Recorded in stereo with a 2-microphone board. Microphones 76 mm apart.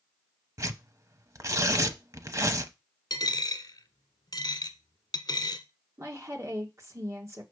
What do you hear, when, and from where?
0.6 s tearing paper: 50° right (ahead or behind), 0.7 m
3.1 s a dropped coin: 65° left (ahead or behind), 1.0 m
6.0 s a woman speaking: 40° right (ahead or behind), 1.8 m